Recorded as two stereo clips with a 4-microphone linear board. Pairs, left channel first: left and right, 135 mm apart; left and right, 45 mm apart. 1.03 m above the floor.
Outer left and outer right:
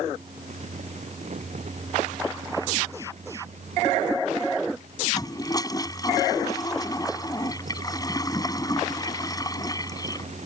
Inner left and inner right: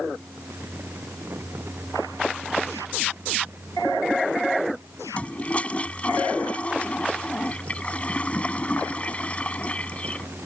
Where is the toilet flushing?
25° left (ahead or behind).